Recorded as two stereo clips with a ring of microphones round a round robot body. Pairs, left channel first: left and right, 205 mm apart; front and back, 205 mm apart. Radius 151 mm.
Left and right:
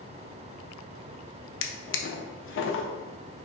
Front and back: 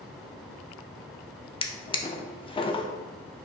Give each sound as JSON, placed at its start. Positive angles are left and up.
{"t": 1.6, "sound": "a drawer", "azimuth_deg": 70, "distance_m": 0.6}